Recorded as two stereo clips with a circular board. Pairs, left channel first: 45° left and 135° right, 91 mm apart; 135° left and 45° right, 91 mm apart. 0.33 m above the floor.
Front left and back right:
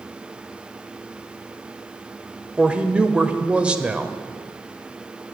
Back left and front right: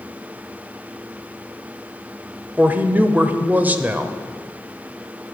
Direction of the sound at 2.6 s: 75° right.